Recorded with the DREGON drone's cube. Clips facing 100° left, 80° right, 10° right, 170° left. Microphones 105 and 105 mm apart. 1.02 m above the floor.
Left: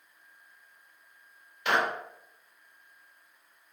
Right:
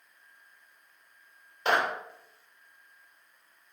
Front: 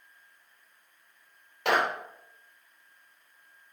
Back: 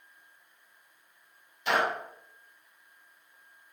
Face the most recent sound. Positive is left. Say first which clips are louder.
# right 1 dB, front 1 dB
turn(degrees=-25)